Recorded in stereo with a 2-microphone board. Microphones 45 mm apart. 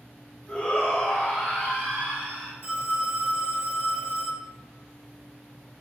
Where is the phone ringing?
55° right (ahead or behind), 1.6 m.